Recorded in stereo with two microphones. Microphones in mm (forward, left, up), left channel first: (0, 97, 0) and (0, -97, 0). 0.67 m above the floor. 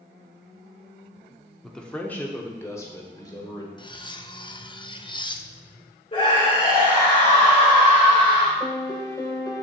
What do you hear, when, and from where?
1.6 s a man speaking: centre (ahead or behind), 1.1 m; by 3.7 s 20° left (ahead or behind), 2.5 m
3.8 s cutlery clinking: 25° left (ahead or behind), 0.5 m
6.1 s a scream: 30° left (ahead or behind), 2.5 m
8.6 s a piano: 20° left (ahead or behind), 1.0 m